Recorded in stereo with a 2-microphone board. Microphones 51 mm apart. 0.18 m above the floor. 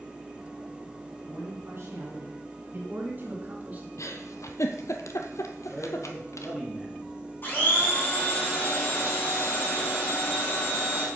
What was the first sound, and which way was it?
A man speaking, 50° right (ahead or behind).